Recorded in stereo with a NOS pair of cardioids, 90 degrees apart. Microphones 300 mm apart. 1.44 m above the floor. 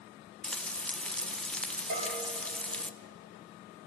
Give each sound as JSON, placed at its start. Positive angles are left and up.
{"t": 0.4, "sound": "frying", "azimuth_deg": 5, "distance_m": 0.8}
{"t": 1.9, "sound": "a bell", "azimuth_deg": -60, "distance_m": 7.0}